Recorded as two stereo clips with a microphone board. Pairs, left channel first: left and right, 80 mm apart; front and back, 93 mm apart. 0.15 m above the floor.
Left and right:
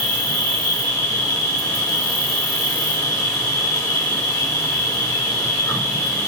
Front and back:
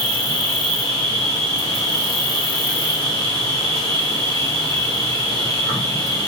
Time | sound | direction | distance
0.0 | an insect | 50° left | 3.5 m